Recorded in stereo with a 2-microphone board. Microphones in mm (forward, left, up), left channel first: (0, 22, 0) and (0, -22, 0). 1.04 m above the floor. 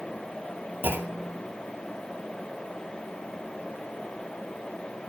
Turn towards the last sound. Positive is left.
turn(degrees=-60)  # may be behind; listen again after turning